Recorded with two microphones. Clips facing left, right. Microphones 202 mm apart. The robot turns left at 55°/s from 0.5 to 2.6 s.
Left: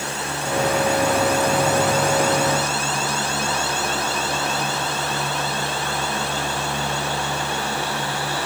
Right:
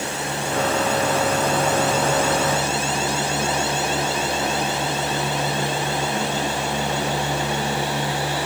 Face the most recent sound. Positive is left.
No sound to turn to.